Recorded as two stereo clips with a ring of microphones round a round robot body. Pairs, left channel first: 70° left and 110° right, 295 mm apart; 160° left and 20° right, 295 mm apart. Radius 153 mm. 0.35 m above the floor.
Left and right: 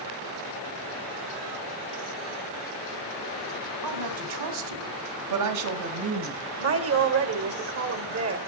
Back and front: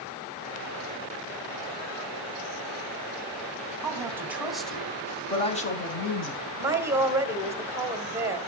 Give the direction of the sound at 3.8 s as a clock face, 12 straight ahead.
3 o'clock.